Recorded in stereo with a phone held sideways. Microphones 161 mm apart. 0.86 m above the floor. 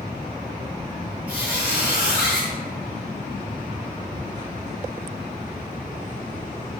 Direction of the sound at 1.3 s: 10° right (ahead or behind).